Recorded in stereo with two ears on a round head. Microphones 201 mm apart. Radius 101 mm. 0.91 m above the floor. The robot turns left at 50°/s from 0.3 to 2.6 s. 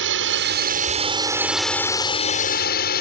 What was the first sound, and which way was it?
A drone, 115° right.